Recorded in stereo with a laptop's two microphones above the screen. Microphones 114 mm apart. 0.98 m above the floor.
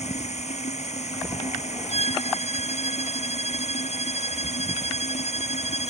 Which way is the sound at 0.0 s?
75° left (ahead or behind).